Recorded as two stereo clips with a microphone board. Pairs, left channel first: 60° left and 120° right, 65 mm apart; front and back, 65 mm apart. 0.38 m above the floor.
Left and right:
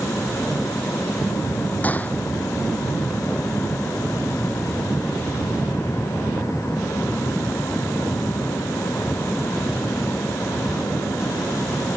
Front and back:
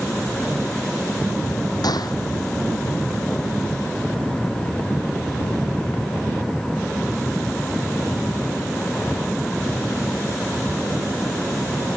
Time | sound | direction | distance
1.8 | a gunshot | 5° right | ?